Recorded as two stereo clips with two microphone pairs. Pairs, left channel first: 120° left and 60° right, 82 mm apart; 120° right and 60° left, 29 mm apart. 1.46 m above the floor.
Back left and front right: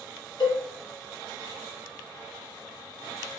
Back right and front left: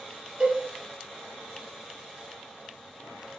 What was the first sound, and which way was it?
A cowbell, 110° left.